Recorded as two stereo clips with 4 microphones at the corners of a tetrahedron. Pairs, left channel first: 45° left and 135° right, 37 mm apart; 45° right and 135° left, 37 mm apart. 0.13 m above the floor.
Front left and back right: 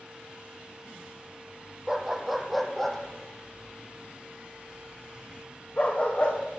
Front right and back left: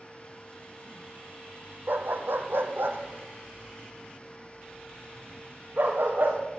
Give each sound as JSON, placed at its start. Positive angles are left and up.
{"t": 1.9, "sound": "a dog barking", "azimuth_deg": 145, "distance_m": 1.4}